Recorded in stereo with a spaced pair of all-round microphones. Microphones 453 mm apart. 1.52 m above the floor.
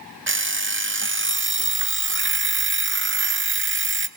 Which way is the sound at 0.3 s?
25° right (ahead or behind).